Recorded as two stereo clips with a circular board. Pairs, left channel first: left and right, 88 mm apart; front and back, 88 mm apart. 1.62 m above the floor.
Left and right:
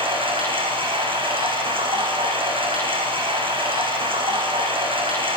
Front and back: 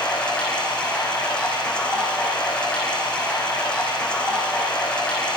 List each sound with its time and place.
0.0 s running water: 80° right, 9 m